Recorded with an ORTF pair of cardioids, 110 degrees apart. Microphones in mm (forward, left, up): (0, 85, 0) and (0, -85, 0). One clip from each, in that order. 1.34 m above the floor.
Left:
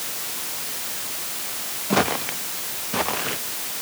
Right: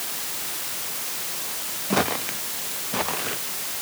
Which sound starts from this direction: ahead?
Footsteps, at 1.9 s.